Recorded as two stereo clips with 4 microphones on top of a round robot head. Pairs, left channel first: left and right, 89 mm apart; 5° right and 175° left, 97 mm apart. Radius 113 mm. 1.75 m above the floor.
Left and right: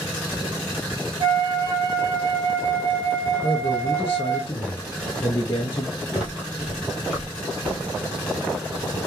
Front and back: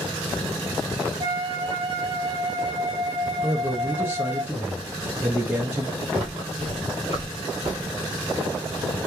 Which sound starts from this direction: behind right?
A flute, at 1.2 s.